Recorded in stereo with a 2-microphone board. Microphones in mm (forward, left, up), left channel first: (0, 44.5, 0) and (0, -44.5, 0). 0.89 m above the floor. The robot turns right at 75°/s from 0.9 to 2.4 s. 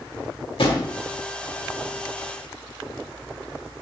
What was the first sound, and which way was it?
A drawer, 70° left (ahead or behind).